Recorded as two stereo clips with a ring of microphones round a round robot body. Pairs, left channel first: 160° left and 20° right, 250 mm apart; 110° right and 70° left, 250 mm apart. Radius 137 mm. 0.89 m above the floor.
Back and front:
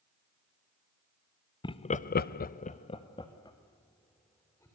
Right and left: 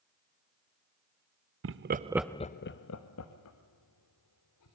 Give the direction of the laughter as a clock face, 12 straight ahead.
9 o'clock.